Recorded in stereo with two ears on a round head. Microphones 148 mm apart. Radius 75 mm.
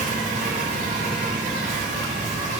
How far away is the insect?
About 3 m.